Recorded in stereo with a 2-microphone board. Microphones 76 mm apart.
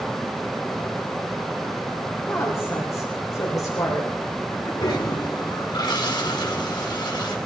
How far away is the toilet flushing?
About 4.5 m.